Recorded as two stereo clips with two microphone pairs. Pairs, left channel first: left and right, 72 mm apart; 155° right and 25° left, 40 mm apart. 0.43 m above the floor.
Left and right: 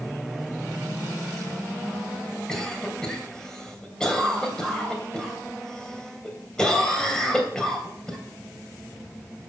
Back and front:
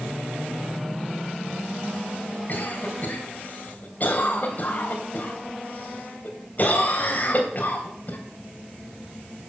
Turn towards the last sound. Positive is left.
turn(degrees=170)